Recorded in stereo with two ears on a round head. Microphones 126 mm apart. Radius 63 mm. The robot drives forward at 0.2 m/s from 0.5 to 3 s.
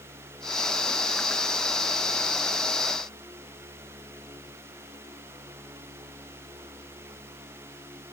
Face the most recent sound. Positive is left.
No sound to turn to.